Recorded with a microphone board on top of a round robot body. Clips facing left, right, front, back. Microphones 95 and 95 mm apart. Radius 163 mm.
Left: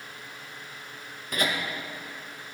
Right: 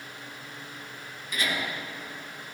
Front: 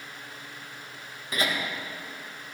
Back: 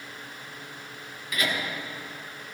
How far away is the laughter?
About 2.5 m.